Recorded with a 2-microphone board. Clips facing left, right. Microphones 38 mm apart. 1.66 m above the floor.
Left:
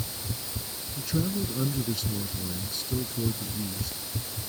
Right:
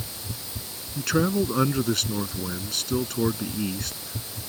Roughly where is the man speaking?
Right.